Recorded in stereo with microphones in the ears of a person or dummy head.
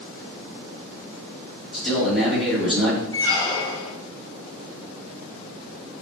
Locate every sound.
1.7 s a man speaking: centre (ahead or behind), 3 m
3.1 s a squeak: 20° left (ahead or behind), 0.9 m